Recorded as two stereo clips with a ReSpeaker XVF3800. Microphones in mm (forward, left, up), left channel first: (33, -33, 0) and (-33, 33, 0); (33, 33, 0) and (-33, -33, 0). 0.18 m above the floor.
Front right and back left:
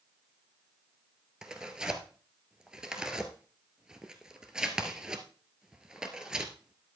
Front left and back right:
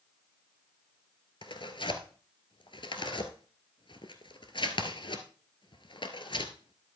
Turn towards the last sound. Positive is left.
turn(degrees=55)